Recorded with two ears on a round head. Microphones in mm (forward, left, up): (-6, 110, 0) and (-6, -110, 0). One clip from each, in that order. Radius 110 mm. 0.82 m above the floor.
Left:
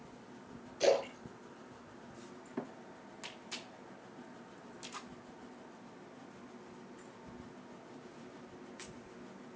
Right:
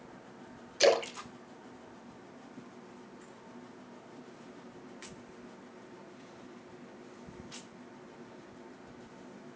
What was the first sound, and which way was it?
A splash, 55° right (ahead or behind).